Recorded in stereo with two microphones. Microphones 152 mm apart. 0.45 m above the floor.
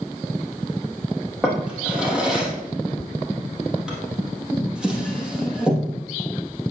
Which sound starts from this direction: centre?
A drawer, at 1.4 s.